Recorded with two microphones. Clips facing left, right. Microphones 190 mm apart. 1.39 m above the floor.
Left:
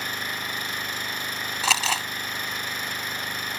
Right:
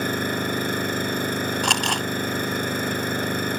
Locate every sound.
0.0 s an engine running: 55° right (ahead or behind)
1.6 s crumpling: 5° left (ahead or behind)